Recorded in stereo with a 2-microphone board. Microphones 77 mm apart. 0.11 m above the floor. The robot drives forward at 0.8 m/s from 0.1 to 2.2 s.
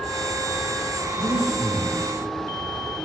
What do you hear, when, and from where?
1.2 s breathing: 85° left, 3.5 m; by 2.0 s 80° left, 3.5 m